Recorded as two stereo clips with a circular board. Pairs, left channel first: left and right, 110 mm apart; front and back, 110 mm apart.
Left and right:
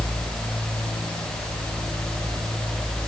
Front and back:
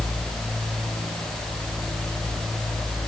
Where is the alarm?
No alarm in this recording.